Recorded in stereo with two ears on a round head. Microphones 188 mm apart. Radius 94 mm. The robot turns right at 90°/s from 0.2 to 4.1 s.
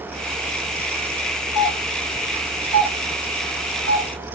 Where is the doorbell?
50° left (ahead or behind), 3.5 m; by 4.1 s 55° right (ahead or behind), 3.5 m.